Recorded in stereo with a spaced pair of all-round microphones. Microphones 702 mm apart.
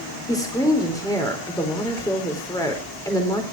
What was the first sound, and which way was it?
A woman speaking, 5° left (ahead or behind).